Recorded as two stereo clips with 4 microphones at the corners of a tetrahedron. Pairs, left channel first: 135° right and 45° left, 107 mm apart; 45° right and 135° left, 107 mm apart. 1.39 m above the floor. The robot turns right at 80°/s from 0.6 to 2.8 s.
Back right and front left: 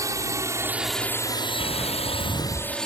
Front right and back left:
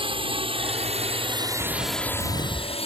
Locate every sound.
0.0 s a drone: 105° left; by 2.9 s 50° right
1.6 s footsteps: 115° left; by 2.8 s 165° right